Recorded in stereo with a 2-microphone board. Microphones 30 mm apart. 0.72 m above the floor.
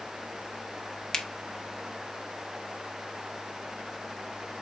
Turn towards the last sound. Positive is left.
turn(degrees=15)  # may be behind; listen again after turning